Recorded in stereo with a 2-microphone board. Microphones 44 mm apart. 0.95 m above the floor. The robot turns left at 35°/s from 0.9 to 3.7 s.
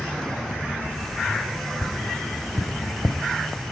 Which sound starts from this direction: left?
Tapping, at 1.8 s.